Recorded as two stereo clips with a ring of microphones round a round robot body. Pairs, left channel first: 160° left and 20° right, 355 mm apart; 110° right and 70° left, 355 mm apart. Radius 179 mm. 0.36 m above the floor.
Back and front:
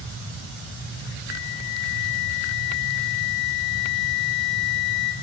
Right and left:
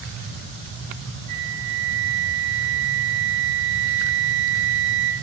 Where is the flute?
110° left, 2 m.